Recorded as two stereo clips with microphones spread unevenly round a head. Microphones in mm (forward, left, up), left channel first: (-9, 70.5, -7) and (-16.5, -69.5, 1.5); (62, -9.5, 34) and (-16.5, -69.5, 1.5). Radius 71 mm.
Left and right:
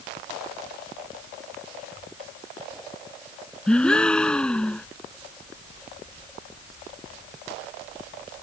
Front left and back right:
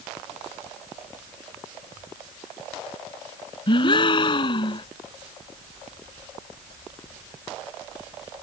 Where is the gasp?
5° left.